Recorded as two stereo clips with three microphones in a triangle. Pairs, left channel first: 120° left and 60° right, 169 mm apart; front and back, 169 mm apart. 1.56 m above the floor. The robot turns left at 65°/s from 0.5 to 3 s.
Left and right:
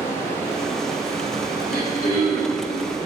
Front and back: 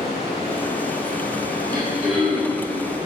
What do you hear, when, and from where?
0.0 s running water: 45° left, 1.5 m; by 3.1 s 115° right, 1.5 m
1.7 s throat clearing: 120° left, 1.7 m; by 2.6 s 60° left, 1.7 m